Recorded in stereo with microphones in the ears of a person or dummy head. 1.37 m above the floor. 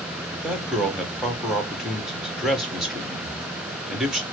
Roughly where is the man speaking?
Centre.